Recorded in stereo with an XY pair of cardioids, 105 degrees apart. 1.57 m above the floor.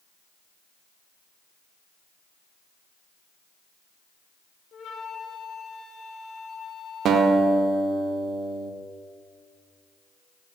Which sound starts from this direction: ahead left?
A flute, at 4.7 s.